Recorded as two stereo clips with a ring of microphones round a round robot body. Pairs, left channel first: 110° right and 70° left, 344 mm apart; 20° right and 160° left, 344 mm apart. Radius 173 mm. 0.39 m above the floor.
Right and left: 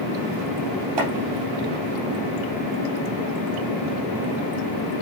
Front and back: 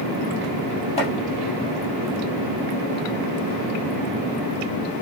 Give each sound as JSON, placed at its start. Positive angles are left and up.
{"t": 1.0, "sound": "chopping", "azimuth_deg": 50, "distance_m": 3.0}